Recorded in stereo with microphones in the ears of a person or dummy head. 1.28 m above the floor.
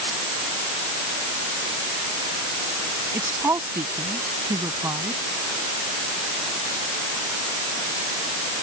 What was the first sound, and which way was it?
A woman speaking, 15° right (ahead or behind).